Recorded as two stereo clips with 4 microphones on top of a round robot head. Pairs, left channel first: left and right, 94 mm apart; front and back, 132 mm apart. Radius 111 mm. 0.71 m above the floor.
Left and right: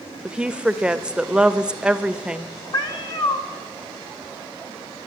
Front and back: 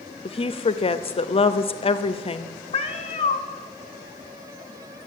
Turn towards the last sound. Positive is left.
turn(degrees=45)